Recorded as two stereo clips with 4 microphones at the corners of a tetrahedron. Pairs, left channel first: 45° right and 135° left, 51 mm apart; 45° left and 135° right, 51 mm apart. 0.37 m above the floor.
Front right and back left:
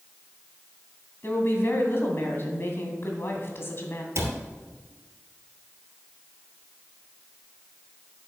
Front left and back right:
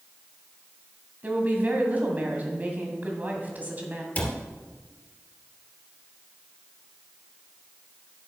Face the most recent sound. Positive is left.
turn(degrees=105)